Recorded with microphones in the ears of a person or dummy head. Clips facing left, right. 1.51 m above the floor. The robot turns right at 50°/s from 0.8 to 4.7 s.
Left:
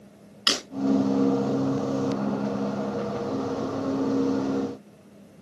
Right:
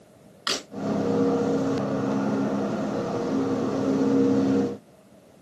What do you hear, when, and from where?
0.5 s breaking glass: 45° left (ahead or behind), 5 m